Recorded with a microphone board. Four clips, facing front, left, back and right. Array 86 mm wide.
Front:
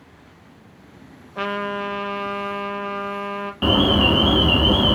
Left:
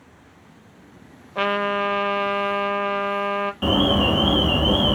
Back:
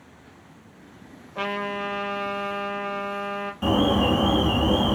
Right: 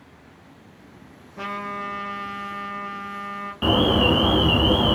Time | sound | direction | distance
1.4 | a trumpet | 95° left | 0.6 m
3.6 | an alarm | 20° right | 0.8 m